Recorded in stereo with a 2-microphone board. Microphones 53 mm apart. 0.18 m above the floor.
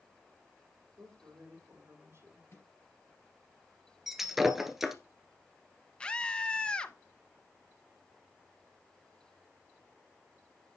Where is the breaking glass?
5° right (ahead or behind), 1.3 m.